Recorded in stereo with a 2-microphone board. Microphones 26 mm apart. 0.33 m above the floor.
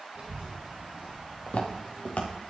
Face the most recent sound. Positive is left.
turn(degrees=70)  # may be behind; listen again after turning